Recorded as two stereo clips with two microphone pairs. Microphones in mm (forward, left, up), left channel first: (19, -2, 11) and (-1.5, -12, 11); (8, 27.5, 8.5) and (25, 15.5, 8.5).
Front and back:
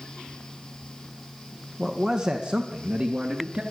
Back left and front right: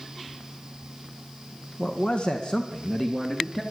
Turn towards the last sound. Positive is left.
turn(degrees=-135)